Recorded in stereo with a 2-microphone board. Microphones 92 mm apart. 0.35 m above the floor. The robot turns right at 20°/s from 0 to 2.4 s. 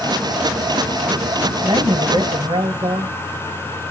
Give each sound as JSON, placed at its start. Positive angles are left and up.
{"t": 1.6, "sound": "a man speaking", "side_deg": -60, "distance_m": 2.5}